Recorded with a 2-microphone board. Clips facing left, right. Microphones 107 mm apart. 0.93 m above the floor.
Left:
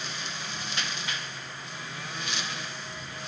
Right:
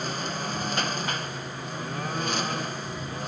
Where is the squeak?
No squeak in this recording.